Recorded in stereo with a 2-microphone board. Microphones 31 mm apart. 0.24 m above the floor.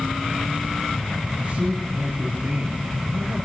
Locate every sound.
1.4 s a man speaking: 45° right (ahead or behind), 5 m